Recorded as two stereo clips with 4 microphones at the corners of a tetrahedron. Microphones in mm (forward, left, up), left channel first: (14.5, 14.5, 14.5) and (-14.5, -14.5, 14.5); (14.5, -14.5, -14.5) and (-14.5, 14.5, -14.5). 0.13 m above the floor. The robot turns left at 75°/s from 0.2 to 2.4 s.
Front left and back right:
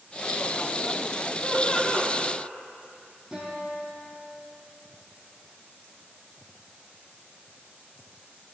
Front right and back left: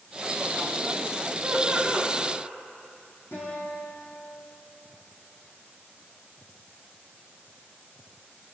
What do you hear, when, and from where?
1.4 s laughter: 70° left, 6.5 m; by 2.1 s 20° left, 6.5 m
3.3 s a guitar: 50° right, 7 m